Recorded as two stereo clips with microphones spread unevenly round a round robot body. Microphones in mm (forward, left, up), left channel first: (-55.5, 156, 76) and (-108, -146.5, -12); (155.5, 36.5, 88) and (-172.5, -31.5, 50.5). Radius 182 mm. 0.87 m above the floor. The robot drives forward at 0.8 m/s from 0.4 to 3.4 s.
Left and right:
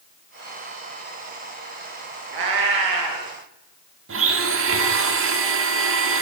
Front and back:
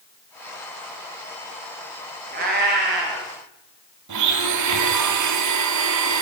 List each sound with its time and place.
2.3 s a cat meowing: 100° right, 5.5 m; by 3.3 s 110° right, 5.5 m
4.1 s a blender: 140° right, 2 m